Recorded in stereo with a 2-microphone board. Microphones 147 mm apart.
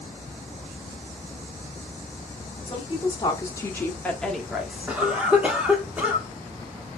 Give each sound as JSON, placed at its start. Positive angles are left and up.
{"t": 2.7, "sound": "a woman speaking", "side_deg": 35, "distance_m": 1.6}
{"t": 4.9, "sound": "a cough", "side_deg": -10, "distance_m": 1.3}